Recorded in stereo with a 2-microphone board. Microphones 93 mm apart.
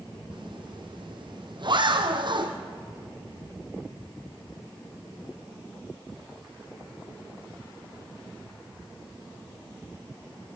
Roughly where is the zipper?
Right.